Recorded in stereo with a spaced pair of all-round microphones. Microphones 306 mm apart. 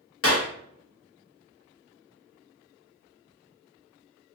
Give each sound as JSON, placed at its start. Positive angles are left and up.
{"t": 0.2, "sound": "a clap", "side_deg": 45, "distance_m": 0.9}